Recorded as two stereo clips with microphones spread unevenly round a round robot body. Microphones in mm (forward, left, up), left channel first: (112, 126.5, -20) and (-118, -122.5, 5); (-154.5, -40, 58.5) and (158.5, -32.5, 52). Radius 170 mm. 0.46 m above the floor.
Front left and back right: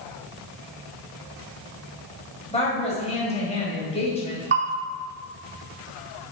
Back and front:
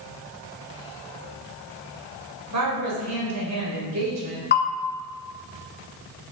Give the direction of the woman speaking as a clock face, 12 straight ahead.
1 o'clock.